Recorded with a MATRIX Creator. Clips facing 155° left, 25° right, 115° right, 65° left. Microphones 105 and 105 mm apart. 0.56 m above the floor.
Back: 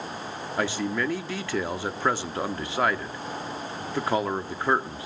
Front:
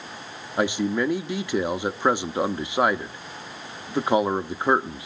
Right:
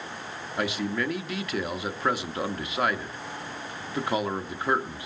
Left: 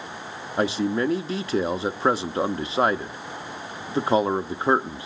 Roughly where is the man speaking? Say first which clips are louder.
Front 4 dB, left 6 dB; ahead left.